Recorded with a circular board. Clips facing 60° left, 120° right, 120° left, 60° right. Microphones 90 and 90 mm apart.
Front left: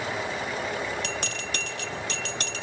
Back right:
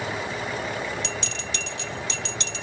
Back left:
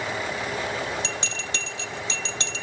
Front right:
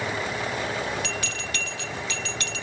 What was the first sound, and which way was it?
A bell, 65° left.